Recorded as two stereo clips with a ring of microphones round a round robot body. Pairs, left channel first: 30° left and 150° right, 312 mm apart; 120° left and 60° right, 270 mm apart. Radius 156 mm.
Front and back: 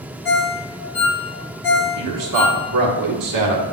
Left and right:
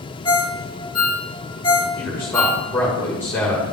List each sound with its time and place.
0.2 s a ringtone: 45° left, 1.7 m
2.0 s a man speaking: 155° right, 1.4 m